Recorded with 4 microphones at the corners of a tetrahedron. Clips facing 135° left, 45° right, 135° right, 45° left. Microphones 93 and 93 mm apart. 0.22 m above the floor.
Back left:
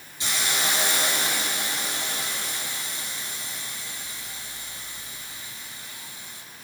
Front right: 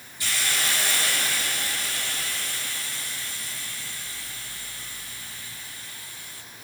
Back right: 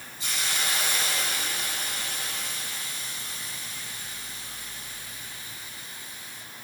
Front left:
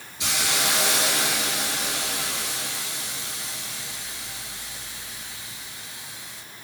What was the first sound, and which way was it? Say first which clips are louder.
A hiss: back left 1 dB, front left 5 dB; 65° left.